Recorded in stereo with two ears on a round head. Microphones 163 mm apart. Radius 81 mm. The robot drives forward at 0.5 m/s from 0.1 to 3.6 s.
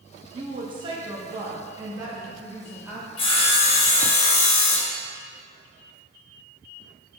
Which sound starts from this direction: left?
Sawing, at 3.2 s.